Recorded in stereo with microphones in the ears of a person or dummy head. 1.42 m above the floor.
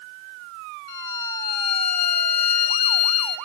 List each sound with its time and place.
0.9 s a violin: 60° left (ahead or behind), 2.5 m